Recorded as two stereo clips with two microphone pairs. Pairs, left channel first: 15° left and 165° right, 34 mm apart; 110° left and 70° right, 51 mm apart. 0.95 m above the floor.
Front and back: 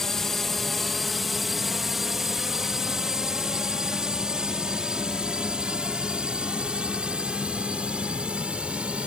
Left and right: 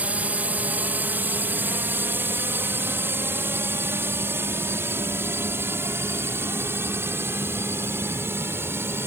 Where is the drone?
55° right; by 9.1 s 110° right.